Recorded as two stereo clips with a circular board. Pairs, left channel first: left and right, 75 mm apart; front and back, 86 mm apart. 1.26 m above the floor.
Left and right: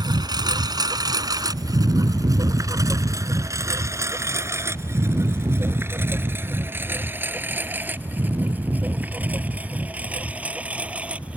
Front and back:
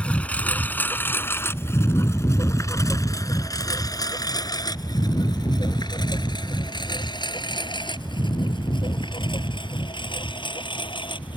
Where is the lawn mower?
75° right; by 11.4 s 15° right.